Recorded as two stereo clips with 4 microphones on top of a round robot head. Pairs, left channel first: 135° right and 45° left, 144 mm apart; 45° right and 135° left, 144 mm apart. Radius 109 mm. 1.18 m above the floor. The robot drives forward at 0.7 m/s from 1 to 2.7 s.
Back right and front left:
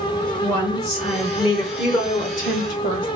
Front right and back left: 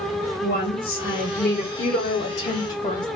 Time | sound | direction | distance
0.4 | a woman speaking | 35° right | 1.3 m